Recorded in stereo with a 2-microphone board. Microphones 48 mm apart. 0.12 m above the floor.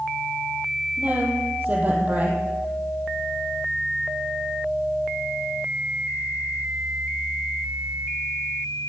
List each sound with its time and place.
1.0 s a woman speaking: 35° right (ahead or behind), 4 m